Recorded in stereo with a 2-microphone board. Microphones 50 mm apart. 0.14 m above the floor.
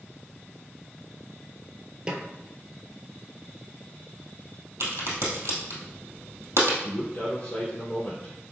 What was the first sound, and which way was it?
A snare drum, 25° right (ahead or behind).